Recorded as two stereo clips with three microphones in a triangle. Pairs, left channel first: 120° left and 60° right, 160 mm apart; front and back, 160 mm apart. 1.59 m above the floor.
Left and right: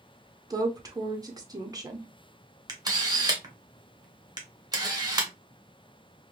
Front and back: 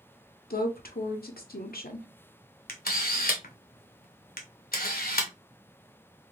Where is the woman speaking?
5° left, 0.6 m.